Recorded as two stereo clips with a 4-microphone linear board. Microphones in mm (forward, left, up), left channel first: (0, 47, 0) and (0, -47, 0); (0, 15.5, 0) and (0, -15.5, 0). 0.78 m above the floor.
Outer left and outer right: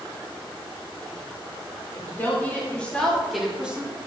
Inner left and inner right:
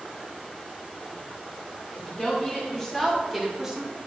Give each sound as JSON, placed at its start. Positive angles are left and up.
{"t": 1.9, "sound": "a woman speaking", "side_deg": 25, "distance_m": 3.5}